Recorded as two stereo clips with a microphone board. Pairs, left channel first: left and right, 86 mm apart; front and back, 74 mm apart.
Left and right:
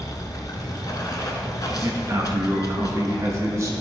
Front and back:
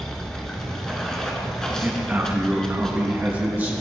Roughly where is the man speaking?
Behind right.